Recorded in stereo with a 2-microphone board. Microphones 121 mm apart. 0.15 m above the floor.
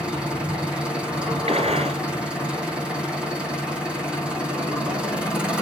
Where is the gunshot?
60° right (ahead or behind), 2.5 m.